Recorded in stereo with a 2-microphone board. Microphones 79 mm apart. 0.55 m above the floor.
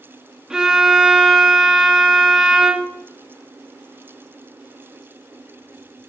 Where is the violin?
10° right (ahead or behind), 1.0 m.